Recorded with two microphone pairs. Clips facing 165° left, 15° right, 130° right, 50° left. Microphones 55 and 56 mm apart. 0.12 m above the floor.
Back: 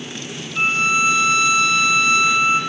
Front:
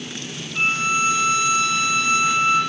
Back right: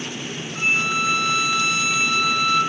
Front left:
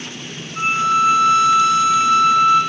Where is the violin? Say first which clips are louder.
Back 3 dB, front left 6 dB; 60° right, 1.1 m.